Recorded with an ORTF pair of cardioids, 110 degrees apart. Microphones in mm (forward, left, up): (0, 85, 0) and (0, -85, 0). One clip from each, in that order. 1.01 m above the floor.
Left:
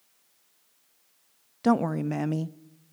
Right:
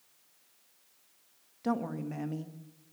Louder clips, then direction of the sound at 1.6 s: Left 9 dB; 55° left.